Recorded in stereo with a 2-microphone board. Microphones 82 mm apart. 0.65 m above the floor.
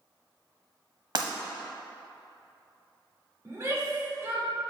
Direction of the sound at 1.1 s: 60° right (ahead or behind).